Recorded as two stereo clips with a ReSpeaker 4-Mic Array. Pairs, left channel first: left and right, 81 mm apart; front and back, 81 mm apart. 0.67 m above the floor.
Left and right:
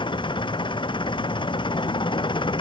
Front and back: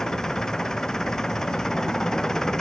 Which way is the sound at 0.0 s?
85° left.